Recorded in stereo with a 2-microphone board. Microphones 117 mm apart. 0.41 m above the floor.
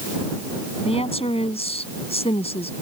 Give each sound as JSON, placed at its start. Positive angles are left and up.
{"t": 0.8, "sound": "a woman speaking", "side_deg": 60}